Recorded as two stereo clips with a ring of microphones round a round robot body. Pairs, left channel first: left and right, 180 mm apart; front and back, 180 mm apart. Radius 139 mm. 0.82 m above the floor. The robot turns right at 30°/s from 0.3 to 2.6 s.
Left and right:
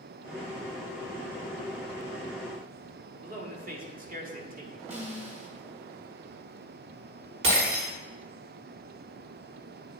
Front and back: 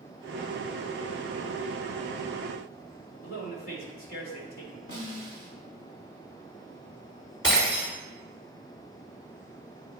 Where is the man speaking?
45° right, 1.3 m.